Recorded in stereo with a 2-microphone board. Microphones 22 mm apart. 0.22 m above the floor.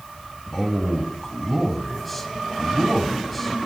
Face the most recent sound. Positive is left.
turn(degrees=5)  # may be behind; listen again after turning